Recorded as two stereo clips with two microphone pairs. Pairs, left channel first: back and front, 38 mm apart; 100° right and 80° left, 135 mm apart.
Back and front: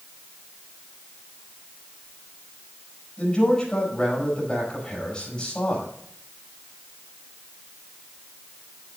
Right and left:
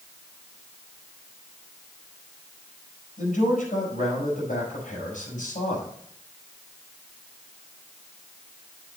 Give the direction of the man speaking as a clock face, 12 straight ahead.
4 o'clock.